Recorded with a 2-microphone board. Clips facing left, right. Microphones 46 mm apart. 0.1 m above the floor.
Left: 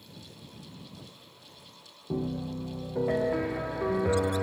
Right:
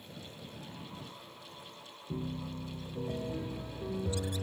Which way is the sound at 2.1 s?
75° left (ahead or behind).